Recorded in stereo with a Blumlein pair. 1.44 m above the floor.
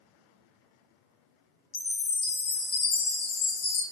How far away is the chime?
About 0.5 m.